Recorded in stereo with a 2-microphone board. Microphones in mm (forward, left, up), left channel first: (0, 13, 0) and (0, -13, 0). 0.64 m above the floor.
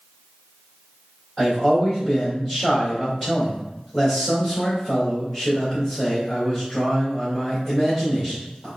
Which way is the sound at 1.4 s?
15° left (ahead or behind).